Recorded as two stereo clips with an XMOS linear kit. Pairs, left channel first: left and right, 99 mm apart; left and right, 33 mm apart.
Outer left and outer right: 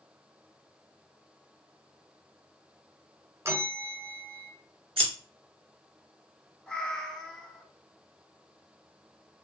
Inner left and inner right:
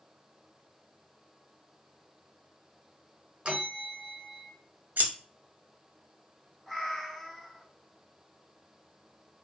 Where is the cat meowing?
5° left (ahead or behind), 0.5 m.